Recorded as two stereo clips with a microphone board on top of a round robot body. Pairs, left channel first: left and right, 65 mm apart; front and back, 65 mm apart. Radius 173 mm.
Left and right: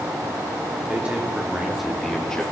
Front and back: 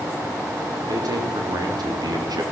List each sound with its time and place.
0.9 s a man speaking: 160° right, 3.5 m; by 2.4 s 170° left, 3 m